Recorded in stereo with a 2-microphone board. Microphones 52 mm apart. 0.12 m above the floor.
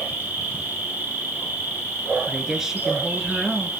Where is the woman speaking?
10° right (ahead or behind), 1.5 m.